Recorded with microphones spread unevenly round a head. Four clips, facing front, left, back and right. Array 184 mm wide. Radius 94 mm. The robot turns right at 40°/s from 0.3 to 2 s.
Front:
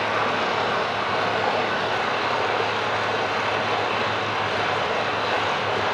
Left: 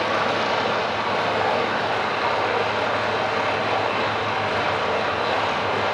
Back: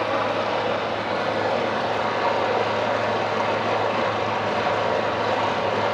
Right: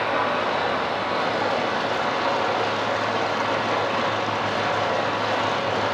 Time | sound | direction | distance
0.0 | running water | 90° left | 6.5 m